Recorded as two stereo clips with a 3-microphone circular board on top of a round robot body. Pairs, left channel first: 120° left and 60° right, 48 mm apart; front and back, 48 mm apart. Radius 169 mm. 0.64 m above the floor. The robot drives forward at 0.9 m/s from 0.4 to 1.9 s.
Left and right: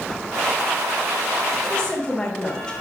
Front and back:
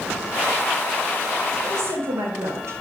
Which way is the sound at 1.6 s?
160° right.